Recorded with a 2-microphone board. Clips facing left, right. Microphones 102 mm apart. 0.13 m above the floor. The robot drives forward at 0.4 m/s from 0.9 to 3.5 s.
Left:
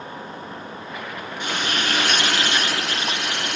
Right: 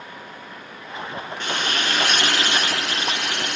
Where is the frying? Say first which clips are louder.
Even; 10° left (ahead or behind), 1.7 m.